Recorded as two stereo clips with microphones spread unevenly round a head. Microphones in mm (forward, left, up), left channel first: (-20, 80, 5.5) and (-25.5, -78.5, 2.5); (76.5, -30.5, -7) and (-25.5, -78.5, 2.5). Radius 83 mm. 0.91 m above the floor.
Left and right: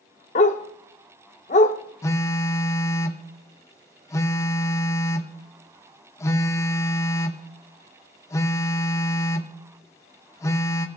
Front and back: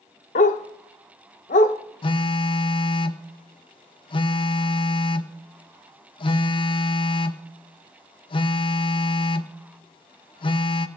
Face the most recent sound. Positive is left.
turn(degrees=20)